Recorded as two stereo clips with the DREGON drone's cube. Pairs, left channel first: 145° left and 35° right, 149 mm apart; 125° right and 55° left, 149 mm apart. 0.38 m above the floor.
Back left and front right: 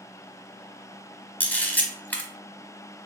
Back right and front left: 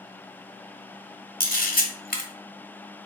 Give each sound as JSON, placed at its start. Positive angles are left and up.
{"t": 1.4, "sound": "a camera shutter", "azimuth_deg": -135, "distance_m": 1.0}